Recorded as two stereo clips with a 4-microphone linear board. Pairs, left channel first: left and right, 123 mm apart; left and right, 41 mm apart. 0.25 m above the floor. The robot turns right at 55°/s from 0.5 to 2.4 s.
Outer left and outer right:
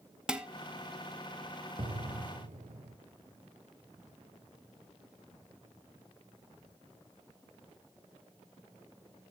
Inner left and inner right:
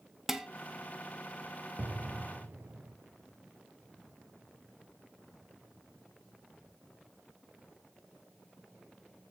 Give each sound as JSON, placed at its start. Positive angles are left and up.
{"t": 0.3, "sound": "dishes clattering", "side_deg": -5, "distance_m": 0.8}
{"t": 1.8, "sound": "an explosion", "azimuth_deg": -130, "distance_m": 1.1}